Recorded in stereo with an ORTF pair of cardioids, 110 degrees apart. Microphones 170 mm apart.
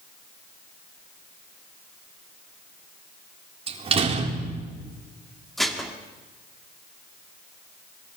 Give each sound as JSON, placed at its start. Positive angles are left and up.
{"t": 3.7, "sound": "a door slam", "azimuth_deg": -35, "distance_m": 3.5}
{"t": 5.6, "sound": "dishes clattering", "azimuth_deg": 0, "distance_m": 2.5}